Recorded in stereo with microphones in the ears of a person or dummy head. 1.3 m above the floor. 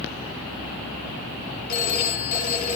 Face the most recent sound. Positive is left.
turn(degrees=45)  # may be behind; listen again after turning